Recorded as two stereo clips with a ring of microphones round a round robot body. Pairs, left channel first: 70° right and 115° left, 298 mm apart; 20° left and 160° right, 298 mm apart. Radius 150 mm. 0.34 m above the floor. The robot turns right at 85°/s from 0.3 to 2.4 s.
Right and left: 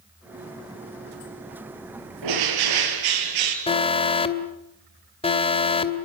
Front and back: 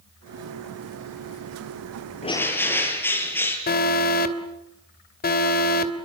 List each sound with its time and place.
2.2 s a bird: 90° left, 5.5 m; by 3.6 s 105° left, 5.5 m
3.7 s an alarm: 10° right, 2.5 m